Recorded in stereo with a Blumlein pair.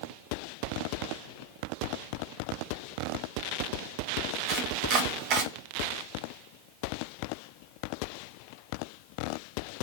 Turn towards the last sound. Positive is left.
turn(degrees=-40)